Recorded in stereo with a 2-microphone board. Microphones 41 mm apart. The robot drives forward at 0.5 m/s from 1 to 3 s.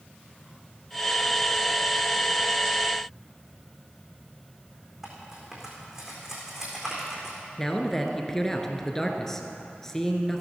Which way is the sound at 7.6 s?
10° left (ahead or behind).